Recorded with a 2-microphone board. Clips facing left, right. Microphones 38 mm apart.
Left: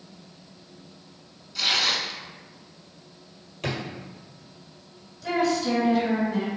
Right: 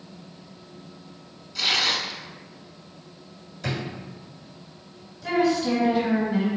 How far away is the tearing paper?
About 0.7 m.